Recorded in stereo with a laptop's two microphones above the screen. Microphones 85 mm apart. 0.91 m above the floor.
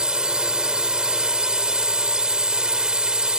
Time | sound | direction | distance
0.0 | a drone | 10° right (ahead or behind) | ?